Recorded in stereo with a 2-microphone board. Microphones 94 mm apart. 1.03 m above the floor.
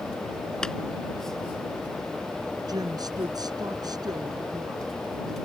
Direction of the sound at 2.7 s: 45° right (ahead or behind).